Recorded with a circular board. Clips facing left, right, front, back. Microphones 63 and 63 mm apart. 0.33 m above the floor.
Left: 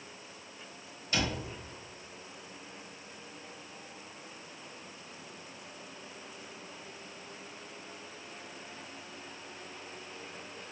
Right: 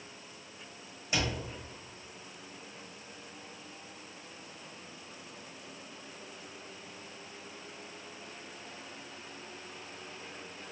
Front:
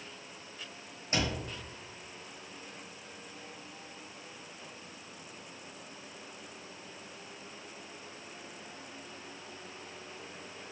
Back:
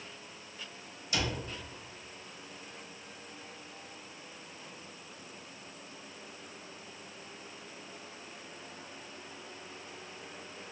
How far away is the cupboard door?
About 1.2 m.